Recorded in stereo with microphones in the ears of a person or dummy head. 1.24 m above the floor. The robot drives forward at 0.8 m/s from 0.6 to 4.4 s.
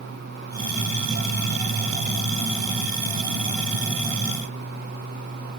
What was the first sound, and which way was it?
Only background noise.